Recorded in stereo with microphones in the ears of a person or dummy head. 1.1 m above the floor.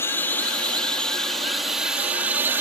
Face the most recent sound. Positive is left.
turn(degrees=-10)  # may be behind; listen again after turning